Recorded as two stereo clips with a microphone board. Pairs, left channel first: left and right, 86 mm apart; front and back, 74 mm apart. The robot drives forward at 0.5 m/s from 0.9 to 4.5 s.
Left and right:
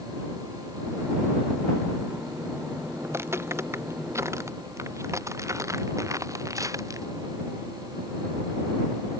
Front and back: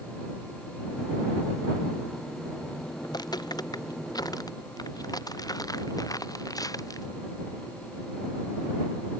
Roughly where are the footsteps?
Ahead right.